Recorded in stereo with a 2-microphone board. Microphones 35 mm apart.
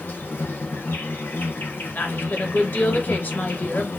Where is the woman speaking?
60° left (ahead or behind), 2.5 m.